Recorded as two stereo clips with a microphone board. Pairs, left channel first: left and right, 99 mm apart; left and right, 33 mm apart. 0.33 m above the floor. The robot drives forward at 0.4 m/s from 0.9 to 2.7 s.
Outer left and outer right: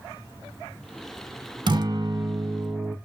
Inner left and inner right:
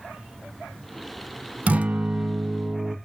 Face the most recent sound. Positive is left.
turn(degrees=-30)  # may be behind; listen again after turning